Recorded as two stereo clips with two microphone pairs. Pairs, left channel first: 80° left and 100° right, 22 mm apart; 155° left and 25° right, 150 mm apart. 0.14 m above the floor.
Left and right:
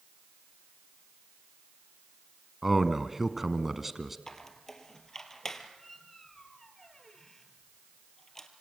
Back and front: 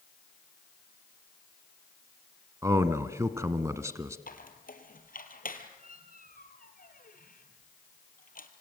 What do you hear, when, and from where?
2.6 s a man speaking: 45° right, 1.2 m
4.3 s a squeak: 155° left, 2 m